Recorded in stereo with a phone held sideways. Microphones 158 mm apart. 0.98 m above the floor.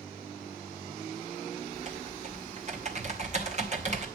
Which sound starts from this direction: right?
Typing on a keyboard, at 1.7 s.